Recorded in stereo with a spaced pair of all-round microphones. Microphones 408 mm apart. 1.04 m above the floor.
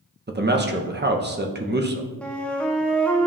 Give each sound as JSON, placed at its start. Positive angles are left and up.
{"t": 0.3, "sound": "a man speaking", "side_deg": -25, "distance_m": 0.7}
{"t": 2.2, "sound": "a flute", "side_deg": 5, "distance_m": 0.6}